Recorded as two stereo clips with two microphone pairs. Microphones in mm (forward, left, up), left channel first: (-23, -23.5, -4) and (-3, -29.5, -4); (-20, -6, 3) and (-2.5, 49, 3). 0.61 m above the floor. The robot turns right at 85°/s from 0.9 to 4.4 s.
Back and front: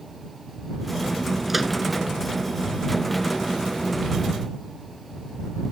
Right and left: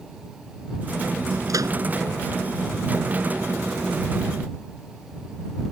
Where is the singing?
I don't hear singing.